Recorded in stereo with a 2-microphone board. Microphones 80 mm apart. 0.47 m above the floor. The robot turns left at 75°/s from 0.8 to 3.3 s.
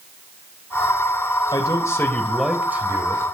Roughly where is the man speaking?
Left.